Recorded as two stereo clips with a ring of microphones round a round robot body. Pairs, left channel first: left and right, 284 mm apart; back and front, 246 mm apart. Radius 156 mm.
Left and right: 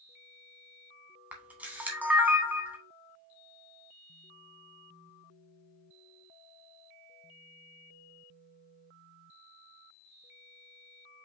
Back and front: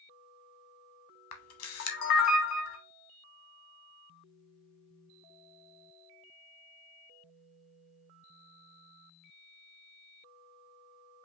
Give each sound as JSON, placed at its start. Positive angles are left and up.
{"t": 1.3, "sound": "a camera shutter", "azimuth_deg": -175, "distance_m": 0.7}